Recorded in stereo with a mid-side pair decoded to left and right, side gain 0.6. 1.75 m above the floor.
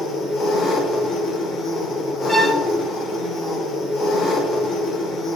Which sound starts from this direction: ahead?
A violin, at 2.3 s.